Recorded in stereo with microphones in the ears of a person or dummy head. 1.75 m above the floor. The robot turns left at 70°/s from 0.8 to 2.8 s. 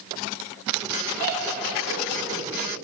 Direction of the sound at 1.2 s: 45° right (ahead or behind).